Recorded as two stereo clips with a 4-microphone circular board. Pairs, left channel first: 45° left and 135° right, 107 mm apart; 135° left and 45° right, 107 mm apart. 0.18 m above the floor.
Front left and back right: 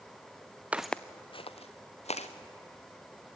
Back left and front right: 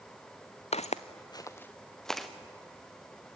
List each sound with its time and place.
0.7 s footsteps: 150° left, 0.9 m; by 2.3 s 45° left, 2 m